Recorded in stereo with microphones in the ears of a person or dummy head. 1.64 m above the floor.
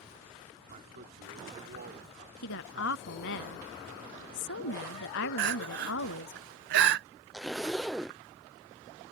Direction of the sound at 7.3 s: Centre (ahead or behind).